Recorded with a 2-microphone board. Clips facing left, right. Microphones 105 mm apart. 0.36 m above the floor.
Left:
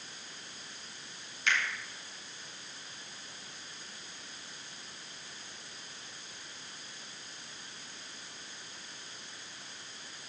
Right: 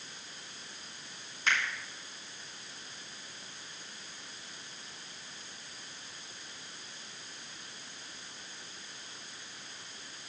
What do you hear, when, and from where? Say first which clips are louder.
1.5 s a finger snap: even; 35° right (ahead or behind), 3 m